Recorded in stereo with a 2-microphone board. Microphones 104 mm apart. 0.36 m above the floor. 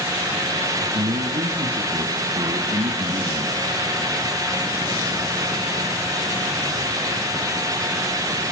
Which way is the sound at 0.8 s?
80° right.